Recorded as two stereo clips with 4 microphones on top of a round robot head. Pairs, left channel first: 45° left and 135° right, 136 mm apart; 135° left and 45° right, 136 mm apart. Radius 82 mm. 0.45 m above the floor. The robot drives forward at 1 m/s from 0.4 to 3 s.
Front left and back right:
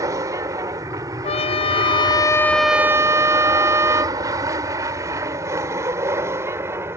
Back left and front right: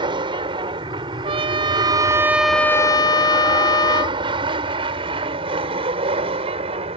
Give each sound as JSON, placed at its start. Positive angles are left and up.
{"t": 0.0, "sound": "an aircraft", "azimuth_deg": -80}
{"t": 1.2, "sound": "a trumpet", "azimuth_deg": 5}